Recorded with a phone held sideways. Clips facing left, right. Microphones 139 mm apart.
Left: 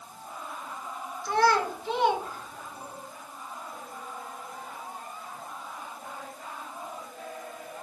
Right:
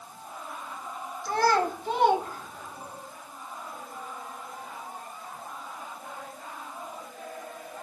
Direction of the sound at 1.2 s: 40° right (ahead or behind).